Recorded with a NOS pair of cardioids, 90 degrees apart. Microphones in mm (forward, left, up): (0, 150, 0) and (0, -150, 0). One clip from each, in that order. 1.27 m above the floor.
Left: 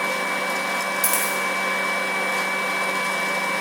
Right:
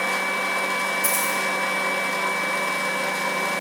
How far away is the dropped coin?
About 1.9 m.